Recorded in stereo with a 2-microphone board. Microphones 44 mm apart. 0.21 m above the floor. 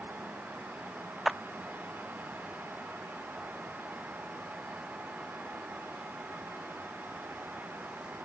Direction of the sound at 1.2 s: 5° right (ahead or behind).